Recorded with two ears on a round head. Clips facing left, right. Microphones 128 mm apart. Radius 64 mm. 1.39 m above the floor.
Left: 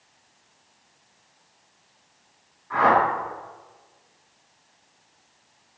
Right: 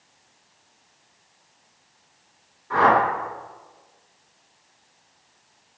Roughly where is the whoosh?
Right.